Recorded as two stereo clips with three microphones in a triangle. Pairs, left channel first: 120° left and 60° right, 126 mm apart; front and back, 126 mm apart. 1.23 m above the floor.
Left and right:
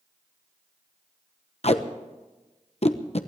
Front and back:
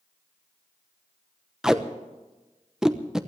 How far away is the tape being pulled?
About 0.9 m.